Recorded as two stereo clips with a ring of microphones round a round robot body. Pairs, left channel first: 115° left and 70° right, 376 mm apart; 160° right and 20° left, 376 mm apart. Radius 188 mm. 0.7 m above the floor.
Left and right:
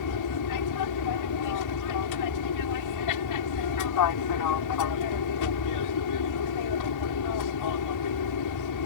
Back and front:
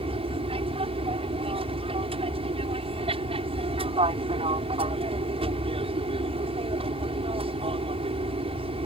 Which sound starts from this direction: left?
An aircraft, at 0.0 s.